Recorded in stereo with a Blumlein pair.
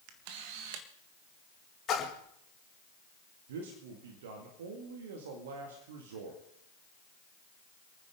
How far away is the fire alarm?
I don't hear a fire alarm.